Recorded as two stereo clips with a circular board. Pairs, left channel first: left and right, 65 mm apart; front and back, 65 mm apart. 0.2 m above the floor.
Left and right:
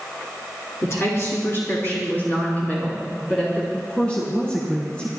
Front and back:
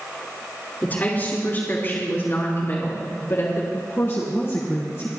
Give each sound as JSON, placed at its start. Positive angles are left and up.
{"t": 0.8, "sound": "a woman speaking", "azimuth_deg": 60, "distance_m": 3.5}
{"t": 3.7, "sound": "a woman speaking", "azimuth_deg": 25, "distance_m": 2.0}